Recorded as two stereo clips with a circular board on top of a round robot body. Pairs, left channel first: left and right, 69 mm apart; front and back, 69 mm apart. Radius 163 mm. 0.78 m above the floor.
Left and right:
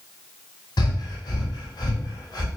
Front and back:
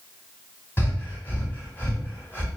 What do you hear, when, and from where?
0.8 s breathing: 60° left, 1.4 m